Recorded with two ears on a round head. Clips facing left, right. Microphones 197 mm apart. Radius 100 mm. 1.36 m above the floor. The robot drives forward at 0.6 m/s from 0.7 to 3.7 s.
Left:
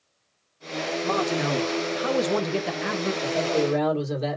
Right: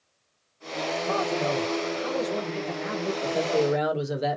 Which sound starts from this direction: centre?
A man speaking, at 3.2 s.